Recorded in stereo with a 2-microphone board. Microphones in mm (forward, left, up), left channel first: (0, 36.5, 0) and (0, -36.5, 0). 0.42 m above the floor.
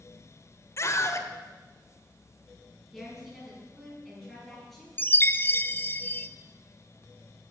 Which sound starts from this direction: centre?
A woman speaking, at 2.9 s.